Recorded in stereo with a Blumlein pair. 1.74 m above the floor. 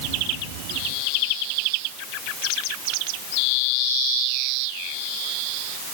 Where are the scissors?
I don't hear scissors.